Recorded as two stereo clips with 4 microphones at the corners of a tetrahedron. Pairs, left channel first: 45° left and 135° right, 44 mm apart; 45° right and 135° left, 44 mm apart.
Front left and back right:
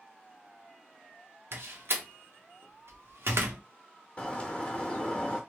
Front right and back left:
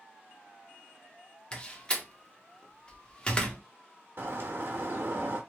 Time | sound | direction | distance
1.5 | a door slam | 110° right | 0.8 m
4.2 | a bird | 110° left | 1.0 m